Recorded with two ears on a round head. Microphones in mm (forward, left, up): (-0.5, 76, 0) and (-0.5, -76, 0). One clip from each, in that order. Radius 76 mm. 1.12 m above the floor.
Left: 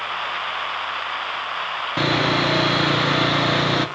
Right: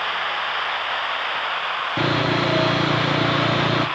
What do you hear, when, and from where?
2.0 s sawing: 40° left (ahead or behind), 1.5 m